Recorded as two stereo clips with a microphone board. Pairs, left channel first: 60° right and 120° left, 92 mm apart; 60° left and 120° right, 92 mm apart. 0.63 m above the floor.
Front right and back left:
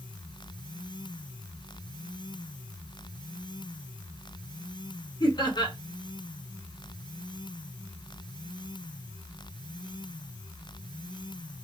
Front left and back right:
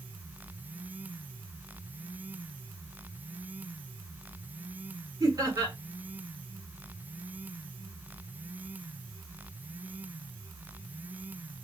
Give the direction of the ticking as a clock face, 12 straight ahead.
No ticking in this recording.